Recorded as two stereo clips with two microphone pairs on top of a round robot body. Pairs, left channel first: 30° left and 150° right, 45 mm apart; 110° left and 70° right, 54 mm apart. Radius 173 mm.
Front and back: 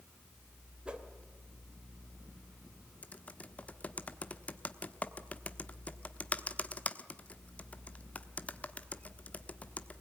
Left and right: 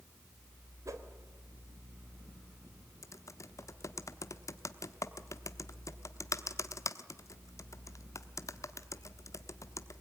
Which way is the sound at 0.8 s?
85° right.